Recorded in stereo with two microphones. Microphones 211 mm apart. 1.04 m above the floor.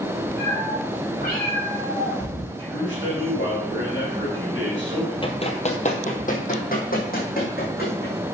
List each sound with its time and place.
0.4 s a cat meowing: 50° left (ahead or behind), 5 m; by 2.5 s 40° left (ahead or behind), 5.5 m
2.6 s a man speaking: 70° left (ahead or behind), 4 m
5.2 s running footsteps: 25° left (ahead or behind), 1.3 m; by 8.2 s 45° left (ahead or behind), 4 m